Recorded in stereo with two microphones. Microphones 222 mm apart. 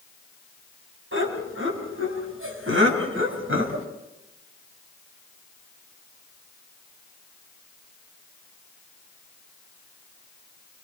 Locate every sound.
1.1 s laughter: 65° right (ahead or behind), 7 m; by 3.9 s 70° right (ahead or behind), 5 m